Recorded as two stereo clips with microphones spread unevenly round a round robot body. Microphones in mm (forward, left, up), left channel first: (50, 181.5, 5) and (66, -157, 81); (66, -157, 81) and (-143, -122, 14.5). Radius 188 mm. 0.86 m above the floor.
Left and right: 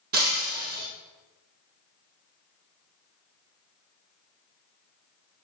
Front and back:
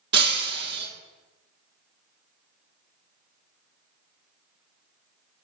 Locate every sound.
0.1 s breaking glass: 145° right, 2 m